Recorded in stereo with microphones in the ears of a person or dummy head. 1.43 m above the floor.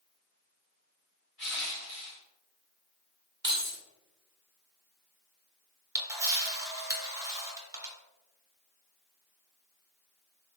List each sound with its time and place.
1.4 s crushing: 15° right (ahead or behind), 1.3 m
3.4 s keys jangling: 25° right (ahead or behind), 1.4 m
6.0 s a camera shutter: 15° right (ahead or behind), 1.1 m